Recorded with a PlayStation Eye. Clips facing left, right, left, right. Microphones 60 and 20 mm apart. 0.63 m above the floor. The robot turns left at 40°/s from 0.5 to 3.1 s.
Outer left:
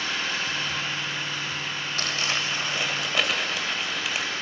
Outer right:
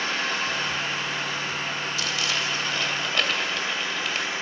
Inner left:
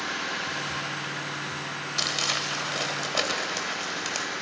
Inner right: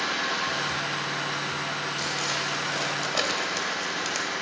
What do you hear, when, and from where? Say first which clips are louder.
0.0 s an engine running: outer right 2 dB, inner right 3 dB; 55° right, 9.5 m; by 4.4 s 160° right, 9.5 m
2.0 s crumpling: outer left 2 dB, inner left 5 dB; 50° left, 2.5 m; by 4.3 s 5° left, 2.5 m